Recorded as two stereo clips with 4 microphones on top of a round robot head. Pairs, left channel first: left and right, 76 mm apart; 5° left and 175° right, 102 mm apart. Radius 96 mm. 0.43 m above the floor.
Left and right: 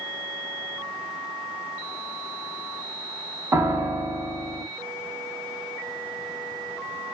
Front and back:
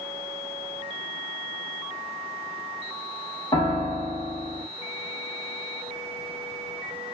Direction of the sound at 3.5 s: 35° right.